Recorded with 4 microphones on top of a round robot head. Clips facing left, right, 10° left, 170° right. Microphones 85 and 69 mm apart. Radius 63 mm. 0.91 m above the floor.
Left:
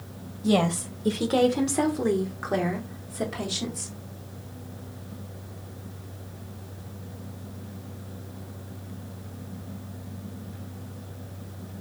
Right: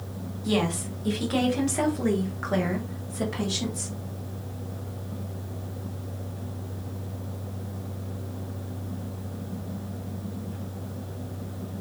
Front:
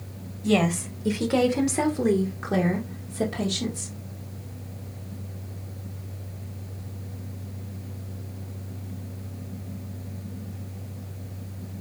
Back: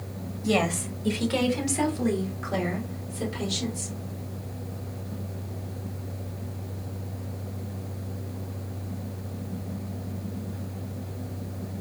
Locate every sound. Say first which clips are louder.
0.4 s a woman speaking: left 3 dB, front 2 dB; 110° left, 0.9 m; by 3.9 s straight ahead, 1.7 m